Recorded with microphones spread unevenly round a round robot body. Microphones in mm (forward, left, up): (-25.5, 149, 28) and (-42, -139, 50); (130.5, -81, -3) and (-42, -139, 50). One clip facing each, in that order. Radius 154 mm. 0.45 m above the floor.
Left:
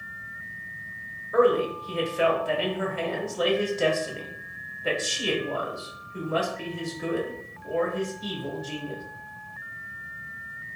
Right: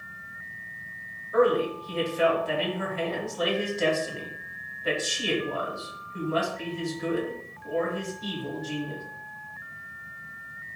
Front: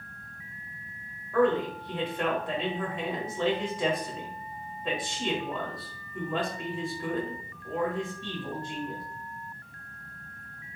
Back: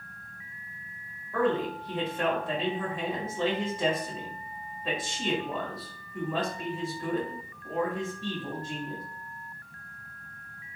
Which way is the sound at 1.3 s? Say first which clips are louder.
Left 1 dB, front 3 dB; 100° left.